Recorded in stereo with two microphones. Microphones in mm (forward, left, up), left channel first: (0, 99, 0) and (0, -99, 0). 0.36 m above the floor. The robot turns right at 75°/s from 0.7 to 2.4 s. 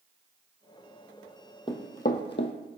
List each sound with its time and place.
1.7 s running footsteps: 25° left (ahead or behind), 0.7 m; by 2.5 s 65° left (ahead or behind), 0.7 m